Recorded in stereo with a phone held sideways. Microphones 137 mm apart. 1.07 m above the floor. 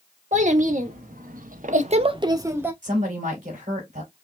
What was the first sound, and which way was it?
A child speaking, 60° right (ahead or behind).